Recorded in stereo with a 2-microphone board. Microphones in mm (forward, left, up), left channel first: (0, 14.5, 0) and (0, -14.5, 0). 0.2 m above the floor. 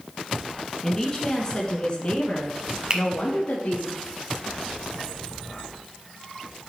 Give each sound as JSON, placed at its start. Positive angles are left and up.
{"t": 0.8, "sound": "a woman speaking", "side_deg": 15, "distance_m": 2.5}
{"t": 2.9, "sound": "a finger snap", "side_deg": -30, "distance_m": 1.0}